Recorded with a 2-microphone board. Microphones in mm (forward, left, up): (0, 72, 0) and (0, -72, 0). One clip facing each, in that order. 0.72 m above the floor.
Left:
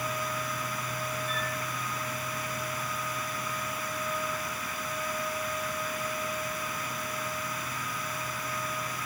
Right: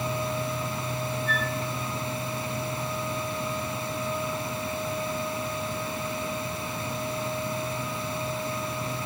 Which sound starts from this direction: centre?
A flute, at 1.3 s.